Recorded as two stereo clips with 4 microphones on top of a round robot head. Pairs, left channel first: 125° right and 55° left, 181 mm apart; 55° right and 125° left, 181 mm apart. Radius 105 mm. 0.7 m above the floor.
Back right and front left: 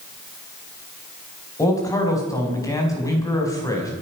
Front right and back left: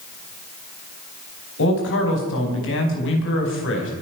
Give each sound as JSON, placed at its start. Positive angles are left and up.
{"t": 1.6, "sound": "a man speaking", "azimuth_deg": -50, "distance_m": 4.5}